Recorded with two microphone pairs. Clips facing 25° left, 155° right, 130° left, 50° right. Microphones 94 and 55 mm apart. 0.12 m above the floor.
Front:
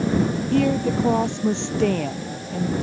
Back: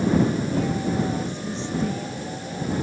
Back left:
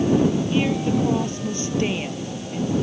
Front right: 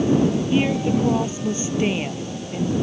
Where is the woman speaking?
25° left.